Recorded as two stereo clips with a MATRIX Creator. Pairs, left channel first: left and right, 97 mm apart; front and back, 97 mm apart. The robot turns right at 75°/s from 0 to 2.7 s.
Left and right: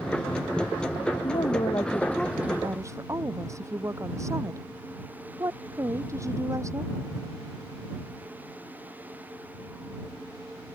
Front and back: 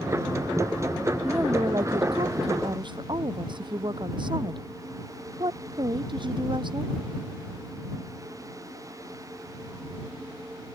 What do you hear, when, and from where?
1.2 s a woman speaking: 105° left; by 6.9 s 150° right